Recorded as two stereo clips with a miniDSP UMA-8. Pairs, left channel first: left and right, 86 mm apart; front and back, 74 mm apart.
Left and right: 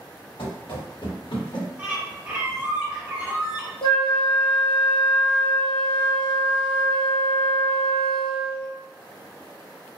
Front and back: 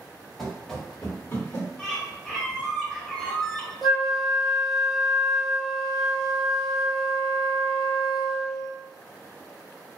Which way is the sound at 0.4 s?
90° left.